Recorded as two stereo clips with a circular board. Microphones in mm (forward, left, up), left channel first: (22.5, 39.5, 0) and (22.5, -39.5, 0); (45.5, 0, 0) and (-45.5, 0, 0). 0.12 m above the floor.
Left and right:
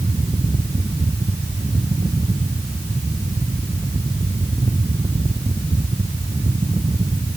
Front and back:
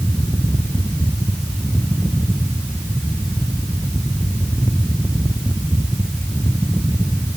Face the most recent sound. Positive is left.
No sound to turn to.